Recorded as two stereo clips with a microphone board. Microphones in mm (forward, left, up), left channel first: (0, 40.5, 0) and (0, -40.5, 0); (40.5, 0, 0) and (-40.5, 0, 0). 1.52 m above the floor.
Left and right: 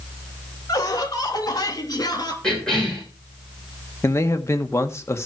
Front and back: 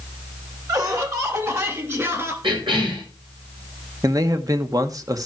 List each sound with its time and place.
0.7 s laughter: 140° left, 2.5 m; by 2.3 s 125° left, 3 m
2.4 s a cough: 170° left, 7 m
4.0 s a man speaking: 140° left, 1.1 m